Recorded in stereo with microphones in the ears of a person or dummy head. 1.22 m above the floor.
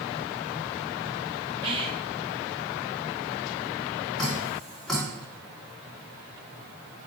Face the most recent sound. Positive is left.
turn(degrees=5)  # may be behind; listen again after turning